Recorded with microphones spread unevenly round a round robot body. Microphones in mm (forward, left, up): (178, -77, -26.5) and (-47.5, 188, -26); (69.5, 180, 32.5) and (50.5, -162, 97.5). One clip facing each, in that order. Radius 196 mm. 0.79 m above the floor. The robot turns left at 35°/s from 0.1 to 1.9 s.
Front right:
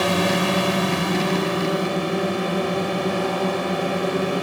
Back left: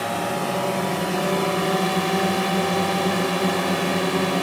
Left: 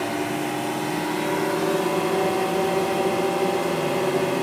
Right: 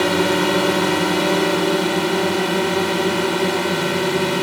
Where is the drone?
85° right; by 4.4 s 150° right.